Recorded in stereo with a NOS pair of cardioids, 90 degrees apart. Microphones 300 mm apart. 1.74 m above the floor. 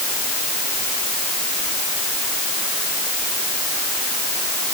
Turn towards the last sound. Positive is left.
No sound to turn to.